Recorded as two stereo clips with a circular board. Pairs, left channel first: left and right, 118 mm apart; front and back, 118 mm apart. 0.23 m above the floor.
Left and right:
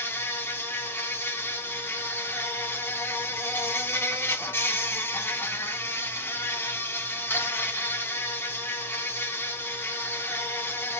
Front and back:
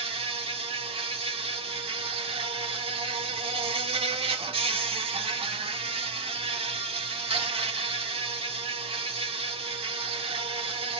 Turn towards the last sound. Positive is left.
turn(degrees=160)